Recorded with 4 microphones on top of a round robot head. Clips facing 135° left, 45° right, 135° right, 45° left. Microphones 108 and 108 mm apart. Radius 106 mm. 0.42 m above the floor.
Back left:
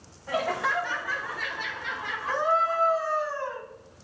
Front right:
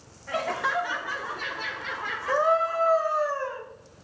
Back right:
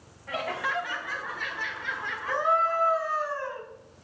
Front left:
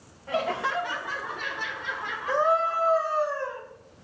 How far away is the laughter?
About 0.9 m.